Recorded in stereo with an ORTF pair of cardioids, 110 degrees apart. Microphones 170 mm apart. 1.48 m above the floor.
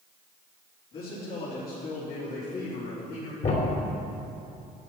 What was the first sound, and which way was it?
A man speaking, 70° left.